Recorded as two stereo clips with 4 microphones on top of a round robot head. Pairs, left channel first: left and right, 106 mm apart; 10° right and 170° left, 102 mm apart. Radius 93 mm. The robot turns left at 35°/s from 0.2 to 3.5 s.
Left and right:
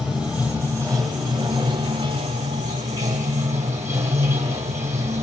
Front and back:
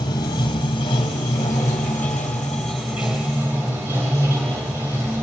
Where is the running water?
10° right, 1.2 m; by 5.2 s 125° right, 1.2 m.